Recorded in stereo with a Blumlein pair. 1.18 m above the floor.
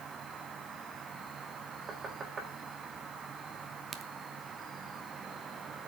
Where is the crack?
20° right, 0.9 m.